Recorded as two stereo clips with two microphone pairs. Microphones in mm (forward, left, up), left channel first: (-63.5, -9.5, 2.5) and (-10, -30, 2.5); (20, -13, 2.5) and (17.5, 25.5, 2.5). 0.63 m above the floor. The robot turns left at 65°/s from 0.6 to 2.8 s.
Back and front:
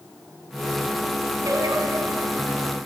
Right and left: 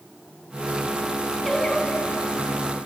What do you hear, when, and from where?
1.4 s singing: straight ahead, 3 m; by 2.9 s 85° right, 3 m